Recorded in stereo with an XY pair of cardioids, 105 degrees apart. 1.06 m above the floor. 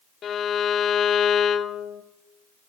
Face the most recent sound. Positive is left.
turn(degrees=65)